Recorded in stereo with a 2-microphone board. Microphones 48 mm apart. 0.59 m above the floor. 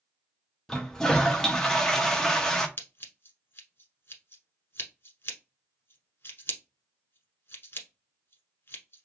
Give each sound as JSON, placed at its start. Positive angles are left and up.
{"t": 0.7, "sound": "a toilet flushing", "side_deg": 10, "distance_m": 0.7}
{"t": 2.8, "sound": "scissors", "side_deg": 55, "distance_m": 1.1}